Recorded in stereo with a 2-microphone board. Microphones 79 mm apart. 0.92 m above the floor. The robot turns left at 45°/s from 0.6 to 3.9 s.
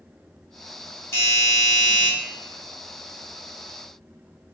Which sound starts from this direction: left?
A doorbell, at 1.1 s.